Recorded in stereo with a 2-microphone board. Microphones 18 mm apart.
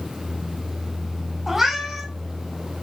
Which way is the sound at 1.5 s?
20° right (ahead or behind).